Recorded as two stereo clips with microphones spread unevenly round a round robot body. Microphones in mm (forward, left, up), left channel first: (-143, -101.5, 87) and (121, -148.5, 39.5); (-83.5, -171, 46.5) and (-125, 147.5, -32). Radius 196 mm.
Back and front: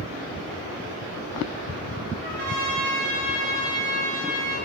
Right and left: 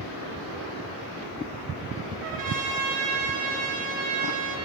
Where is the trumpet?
55° left, 1.3 m.